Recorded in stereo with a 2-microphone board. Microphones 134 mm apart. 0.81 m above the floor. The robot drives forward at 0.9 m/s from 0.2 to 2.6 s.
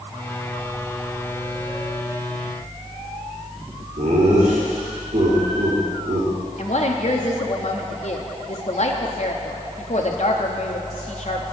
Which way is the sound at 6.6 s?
55° left (ahead or behind).